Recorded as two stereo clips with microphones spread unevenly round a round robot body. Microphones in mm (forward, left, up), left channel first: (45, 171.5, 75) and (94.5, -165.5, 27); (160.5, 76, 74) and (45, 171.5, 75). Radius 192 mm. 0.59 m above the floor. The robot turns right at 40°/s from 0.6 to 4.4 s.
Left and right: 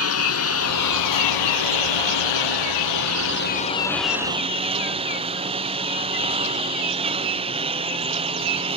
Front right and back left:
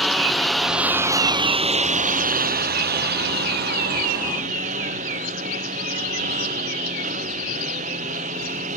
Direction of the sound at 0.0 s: 50° left.